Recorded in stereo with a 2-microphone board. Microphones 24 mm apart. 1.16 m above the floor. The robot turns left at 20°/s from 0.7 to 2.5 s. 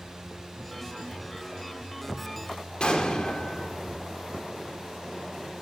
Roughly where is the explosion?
Left.